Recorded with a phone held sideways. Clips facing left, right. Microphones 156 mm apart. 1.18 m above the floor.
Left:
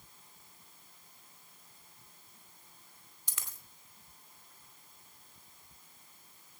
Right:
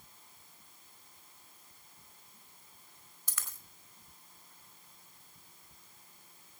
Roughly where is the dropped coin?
Centre.